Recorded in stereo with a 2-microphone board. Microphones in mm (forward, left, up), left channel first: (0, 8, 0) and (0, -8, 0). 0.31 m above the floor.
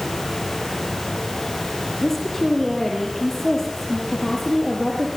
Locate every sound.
2.0 s a woman speaking: 15° left (ahead or behind), 8 m